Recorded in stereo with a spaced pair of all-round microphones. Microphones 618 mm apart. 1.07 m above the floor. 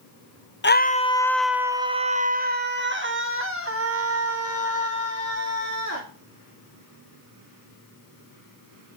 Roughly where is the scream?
Centre.